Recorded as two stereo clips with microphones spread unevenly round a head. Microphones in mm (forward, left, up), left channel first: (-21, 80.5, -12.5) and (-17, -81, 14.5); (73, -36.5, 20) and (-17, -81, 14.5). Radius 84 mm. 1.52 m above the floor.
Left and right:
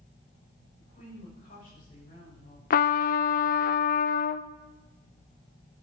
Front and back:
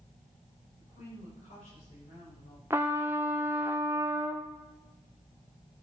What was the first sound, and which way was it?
A woman speaking, 40° left.